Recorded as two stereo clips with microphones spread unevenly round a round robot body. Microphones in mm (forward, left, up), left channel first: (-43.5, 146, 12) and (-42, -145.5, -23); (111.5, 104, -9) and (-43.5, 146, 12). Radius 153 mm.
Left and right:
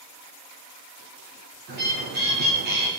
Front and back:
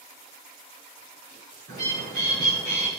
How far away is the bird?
About 3.5 m.